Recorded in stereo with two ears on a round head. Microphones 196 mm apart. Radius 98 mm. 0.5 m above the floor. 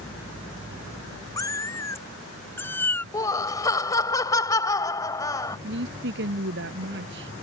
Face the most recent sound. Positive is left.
turn(degrees=-55)  # may be behind; listen again after turning